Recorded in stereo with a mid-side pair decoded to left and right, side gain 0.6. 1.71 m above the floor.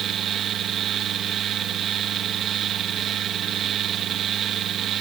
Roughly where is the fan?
Ahead right.